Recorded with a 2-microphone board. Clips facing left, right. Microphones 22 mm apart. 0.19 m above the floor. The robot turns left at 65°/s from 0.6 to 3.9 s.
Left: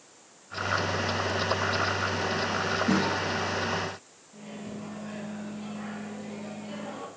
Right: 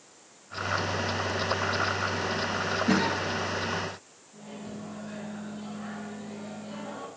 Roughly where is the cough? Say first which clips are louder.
Right 2 dB; right.